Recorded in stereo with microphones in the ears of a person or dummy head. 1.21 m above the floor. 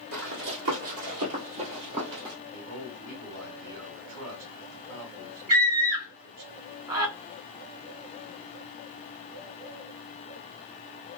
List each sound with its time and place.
0.1 s running footsteps: 55° right (ahead or behind), 2 m; by 2.4 s 15° right (ahead or behind), 1.7 m
2.5 s a man speaking: 80° right, 2.0 m
5.5 s a scream: 25° right (ahead or behind), 2 m